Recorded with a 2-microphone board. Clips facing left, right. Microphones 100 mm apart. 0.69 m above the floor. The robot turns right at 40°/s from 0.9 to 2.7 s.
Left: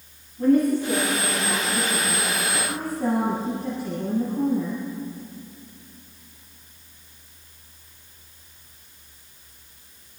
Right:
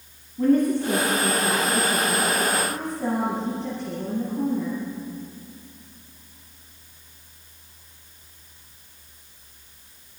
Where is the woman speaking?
65° right, 5.5 m; by 4.8 s 10° left, 5.5 m.